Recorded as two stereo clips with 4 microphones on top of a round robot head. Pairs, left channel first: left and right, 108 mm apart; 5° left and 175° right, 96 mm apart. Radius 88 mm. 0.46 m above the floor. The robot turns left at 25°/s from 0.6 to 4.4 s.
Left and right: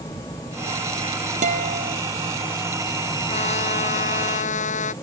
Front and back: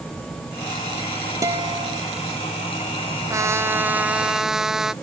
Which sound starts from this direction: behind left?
A trumpet, at 3.3 s.